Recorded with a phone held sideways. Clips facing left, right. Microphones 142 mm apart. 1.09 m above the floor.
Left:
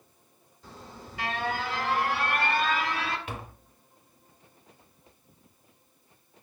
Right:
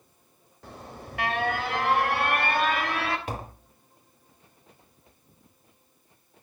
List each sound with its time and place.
0.6 s an alarm: 60° right (ahead or behind), 3.5 m
3.3 s tapping: 40° right (ahead or behind), 1.0 m